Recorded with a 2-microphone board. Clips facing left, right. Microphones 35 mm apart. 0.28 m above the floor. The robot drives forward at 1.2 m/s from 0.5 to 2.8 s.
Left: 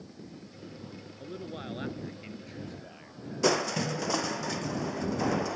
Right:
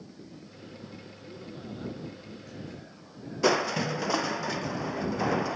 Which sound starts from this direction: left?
A man speaking, at 1.2 s.